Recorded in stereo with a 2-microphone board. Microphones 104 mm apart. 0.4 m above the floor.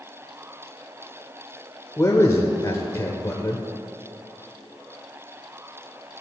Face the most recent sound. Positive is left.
turn(degrees=30)  # may be behind; listen again after turning